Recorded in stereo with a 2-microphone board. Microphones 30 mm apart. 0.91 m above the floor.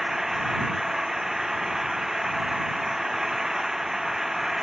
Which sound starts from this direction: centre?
An engine running, at 0.0 s.